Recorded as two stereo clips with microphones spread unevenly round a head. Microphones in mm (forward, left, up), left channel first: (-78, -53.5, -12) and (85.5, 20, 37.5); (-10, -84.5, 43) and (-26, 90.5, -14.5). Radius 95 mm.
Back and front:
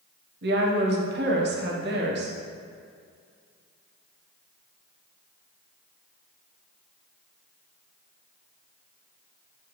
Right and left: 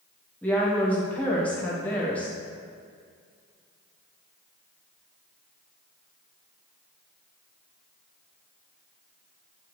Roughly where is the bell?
No bell in this recording.